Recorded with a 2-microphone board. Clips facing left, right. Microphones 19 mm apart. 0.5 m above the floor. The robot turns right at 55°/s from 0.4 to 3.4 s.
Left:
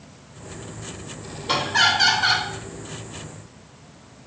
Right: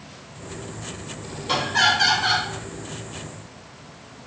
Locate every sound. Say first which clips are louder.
1.5 s laughter: even; 10° left (ahead or behind), 0.6 m; by 2.5 s 20° left (ahead or behind), 0.6 m